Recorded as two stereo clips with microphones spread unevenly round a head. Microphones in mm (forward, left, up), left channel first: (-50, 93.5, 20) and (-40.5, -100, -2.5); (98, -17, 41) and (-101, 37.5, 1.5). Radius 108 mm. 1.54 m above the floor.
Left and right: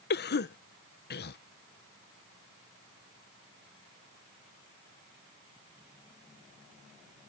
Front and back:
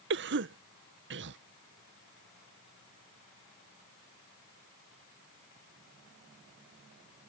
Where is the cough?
125° left.